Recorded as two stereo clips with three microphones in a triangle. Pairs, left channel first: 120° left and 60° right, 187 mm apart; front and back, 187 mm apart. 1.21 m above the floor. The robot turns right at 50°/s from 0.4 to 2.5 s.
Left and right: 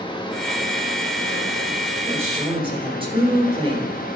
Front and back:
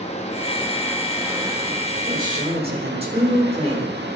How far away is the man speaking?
About 4 m.